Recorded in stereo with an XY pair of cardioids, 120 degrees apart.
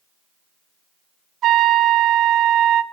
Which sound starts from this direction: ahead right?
A trumpet, at 1.4 s.